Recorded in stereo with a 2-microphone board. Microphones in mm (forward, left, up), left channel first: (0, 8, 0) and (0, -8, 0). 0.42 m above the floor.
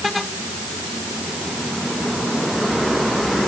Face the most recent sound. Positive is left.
No sound to turn to.